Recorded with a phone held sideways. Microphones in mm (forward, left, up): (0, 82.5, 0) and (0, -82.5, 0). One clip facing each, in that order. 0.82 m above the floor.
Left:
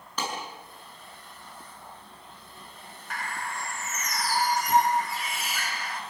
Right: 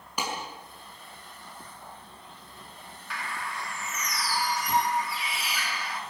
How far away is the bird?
About 1.7 m.